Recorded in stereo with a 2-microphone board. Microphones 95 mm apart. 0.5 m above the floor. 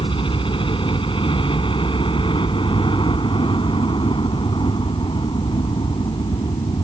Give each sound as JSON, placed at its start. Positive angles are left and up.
{"t": 0.0, "sound": "a helicopter", "side_deg": 65}